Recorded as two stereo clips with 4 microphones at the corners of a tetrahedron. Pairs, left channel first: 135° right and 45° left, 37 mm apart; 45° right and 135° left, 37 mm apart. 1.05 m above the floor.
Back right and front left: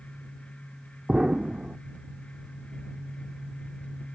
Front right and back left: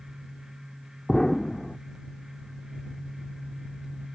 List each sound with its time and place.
1.1 s an explosion: 25° left